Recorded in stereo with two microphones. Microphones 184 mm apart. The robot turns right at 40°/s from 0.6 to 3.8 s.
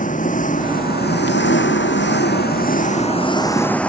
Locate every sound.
0.0 s an engine running: 45° left; by 3.9 s 175° left